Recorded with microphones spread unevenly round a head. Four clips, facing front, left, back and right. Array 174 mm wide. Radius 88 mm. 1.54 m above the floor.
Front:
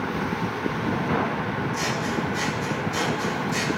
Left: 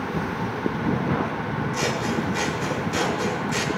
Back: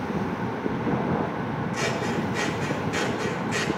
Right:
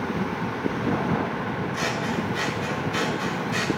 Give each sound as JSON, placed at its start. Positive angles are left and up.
{"t": 1.7, "sound": "scissors", "azimuth_deg": 120, "distance_m": 7.0}